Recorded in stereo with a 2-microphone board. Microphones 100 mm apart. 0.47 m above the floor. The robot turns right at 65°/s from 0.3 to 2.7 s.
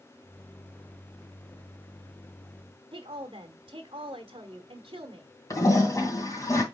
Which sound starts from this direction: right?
A woman speaking, at 2.9 s.